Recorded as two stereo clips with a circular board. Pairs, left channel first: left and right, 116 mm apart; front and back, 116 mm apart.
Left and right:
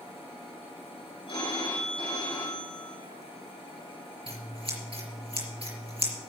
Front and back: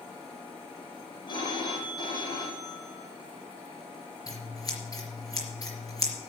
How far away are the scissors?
About 4.5 m.